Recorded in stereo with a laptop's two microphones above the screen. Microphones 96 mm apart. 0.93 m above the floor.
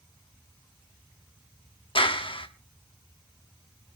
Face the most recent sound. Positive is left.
turn(degrees=65)  # may be behind; listen again after turning